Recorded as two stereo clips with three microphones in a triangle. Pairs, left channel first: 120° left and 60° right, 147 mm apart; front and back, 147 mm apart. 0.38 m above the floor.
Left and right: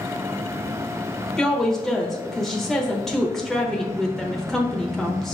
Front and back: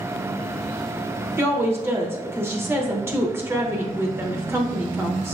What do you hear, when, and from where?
1.4 s a woman speaking: 160° right, 0.8 m